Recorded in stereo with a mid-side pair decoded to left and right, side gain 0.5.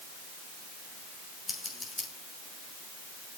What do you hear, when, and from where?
1.5 s scissors: 20° left, 8 m